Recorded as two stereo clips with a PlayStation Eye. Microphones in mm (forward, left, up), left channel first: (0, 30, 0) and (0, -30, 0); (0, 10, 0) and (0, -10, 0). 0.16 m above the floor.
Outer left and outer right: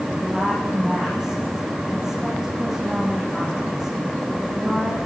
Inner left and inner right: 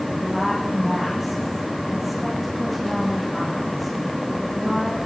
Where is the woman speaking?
10° right (ahead or behind), 7.5 m.